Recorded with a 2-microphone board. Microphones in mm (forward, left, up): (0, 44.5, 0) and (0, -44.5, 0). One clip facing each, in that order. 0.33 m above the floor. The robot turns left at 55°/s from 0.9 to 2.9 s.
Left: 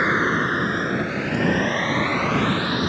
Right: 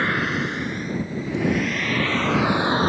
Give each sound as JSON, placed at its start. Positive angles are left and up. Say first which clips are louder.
{"t": 0.0, "sound": "a vehicle", "louder": "left 3 dB", "side_deg": 20}